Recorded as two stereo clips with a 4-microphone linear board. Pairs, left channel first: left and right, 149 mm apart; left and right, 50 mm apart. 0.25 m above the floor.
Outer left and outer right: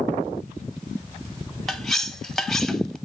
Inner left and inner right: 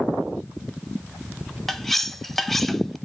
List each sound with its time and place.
1.7 s cutlery clinking: centre (ahead or behind), 0.7 m